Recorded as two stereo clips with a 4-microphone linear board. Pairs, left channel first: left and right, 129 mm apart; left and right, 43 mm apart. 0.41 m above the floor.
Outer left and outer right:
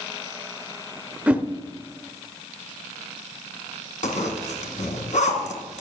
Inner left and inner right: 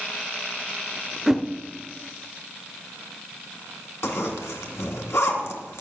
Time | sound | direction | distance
1.3 | a whoosh | 10° right (ahead or behind) | 0.6 m
4.0 | a zipper | 70° left (ahead or behind) | 2 m